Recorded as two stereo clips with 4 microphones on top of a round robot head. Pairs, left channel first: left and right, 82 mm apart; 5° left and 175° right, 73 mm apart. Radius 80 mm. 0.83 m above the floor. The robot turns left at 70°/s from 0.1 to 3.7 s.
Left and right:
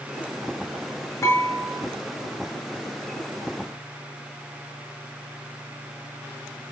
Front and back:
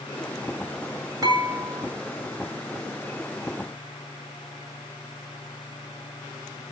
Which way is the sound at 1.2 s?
150° left.